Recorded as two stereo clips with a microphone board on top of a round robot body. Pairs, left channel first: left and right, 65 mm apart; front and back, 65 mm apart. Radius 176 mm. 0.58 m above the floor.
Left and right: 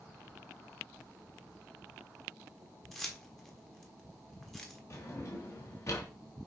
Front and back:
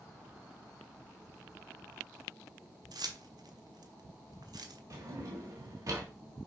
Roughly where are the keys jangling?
Behind.